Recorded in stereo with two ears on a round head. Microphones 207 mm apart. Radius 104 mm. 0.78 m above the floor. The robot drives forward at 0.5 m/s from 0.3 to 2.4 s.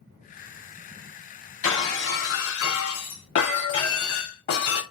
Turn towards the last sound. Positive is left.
turn(degrees=65)  # may be behind; listen again after turning